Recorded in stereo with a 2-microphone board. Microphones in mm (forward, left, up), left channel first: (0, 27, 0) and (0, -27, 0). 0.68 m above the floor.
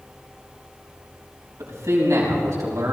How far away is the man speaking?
About 5 m.